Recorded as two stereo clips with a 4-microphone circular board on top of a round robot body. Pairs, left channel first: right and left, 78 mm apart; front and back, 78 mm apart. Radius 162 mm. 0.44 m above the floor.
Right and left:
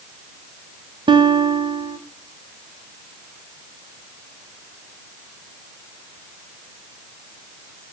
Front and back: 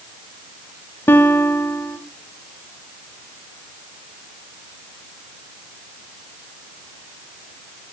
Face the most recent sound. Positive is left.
turn(degrees=65)